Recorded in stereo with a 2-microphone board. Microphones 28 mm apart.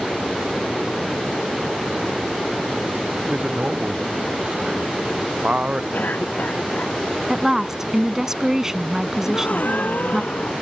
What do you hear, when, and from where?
3.3 s a man speaking: 40° right (ahead or behind); by 5.8 s 45° right (ahead or behind)
5.9 s a cough: 70° left (ahead or behind)
7.3 s a woman speaking: 20° right (ahead or behind)
9.2 s a gasp: 60° left (ahead or behind)